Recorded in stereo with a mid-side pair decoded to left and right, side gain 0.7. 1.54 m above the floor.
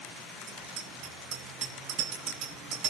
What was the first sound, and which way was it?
A bicycle bell, 60° right.